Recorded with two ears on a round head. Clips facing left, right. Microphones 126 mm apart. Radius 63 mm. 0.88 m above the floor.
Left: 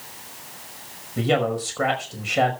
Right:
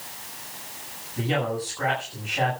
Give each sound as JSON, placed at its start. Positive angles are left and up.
{"t": 1.2, "sound": "a man speaking", "side_deg": 80, "distance_m": 5.0}